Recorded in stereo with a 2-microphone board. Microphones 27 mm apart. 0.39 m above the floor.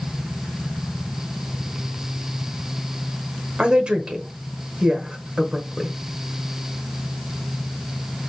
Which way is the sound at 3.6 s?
45° right (ahead or behind).